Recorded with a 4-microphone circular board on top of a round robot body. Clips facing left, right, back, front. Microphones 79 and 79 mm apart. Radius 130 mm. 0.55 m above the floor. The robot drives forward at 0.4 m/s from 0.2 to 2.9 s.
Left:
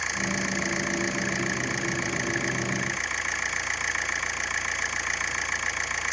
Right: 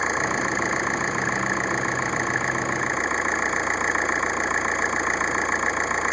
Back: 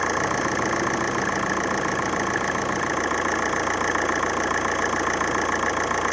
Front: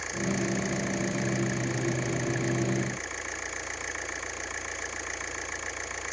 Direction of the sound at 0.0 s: 150° right.